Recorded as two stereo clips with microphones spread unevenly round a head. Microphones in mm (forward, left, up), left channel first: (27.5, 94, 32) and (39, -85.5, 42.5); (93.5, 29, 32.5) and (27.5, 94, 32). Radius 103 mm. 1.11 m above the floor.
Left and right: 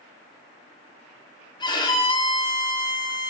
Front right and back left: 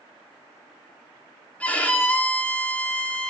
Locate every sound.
1.6 s a violin: 30° left, 3 m